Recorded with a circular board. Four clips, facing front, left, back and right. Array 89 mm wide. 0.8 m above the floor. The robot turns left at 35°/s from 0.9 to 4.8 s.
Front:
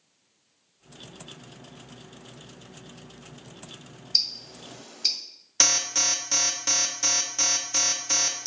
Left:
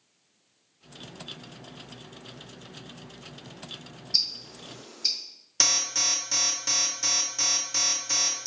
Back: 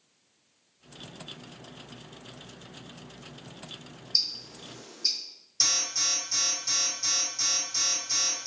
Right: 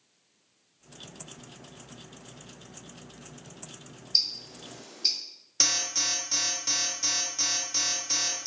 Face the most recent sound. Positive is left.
turn(degrees=15)